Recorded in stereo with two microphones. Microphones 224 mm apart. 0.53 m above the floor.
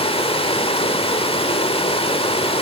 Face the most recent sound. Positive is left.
turn(degrees=25)  # may be behind; listen again after turning